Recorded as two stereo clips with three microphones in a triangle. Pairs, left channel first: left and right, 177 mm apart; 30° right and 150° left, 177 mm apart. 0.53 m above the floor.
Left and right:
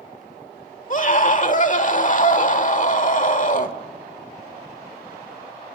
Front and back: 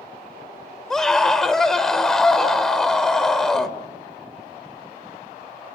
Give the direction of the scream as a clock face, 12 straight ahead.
10 o'clock.